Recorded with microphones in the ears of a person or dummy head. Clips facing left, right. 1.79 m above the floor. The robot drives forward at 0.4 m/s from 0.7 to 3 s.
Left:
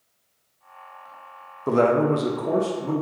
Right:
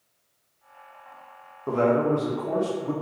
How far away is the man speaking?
About 0.5 m.